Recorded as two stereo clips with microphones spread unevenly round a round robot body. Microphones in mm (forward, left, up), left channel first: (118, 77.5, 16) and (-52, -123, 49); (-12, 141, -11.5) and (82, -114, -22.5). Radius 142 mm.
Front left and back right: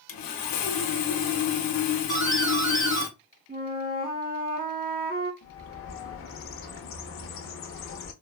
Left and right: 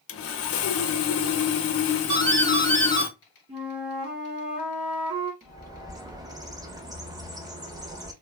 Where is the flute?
85° right, 1.2 m.